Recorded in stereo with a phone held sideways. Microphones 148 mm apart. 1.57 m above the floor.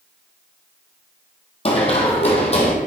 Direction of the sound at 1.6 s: 45° left (ahead or behind).